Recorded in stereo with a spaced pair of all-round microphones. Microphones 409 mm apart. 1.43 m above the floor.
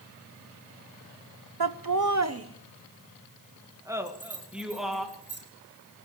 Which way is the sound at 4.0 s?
35° left (ahead or behind).